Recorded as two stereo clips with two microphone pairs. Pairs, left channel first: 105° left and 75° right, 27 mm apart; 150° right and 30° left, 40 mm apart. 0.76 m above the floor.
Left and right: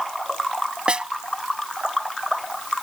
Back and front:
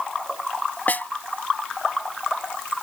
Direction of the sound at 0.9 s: 120° right.